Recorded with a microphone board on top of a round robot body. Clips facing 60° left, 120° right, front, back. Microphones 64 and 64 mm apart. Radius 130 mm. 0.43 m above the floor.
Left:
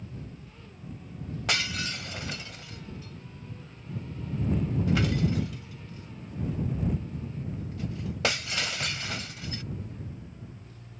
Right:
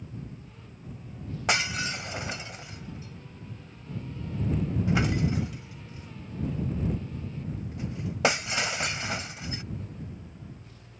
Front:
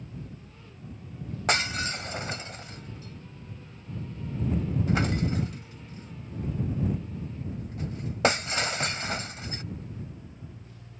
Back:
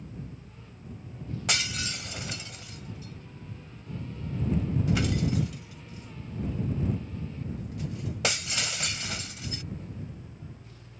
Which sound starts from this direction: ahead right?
Breaking glass, at 1.5 s.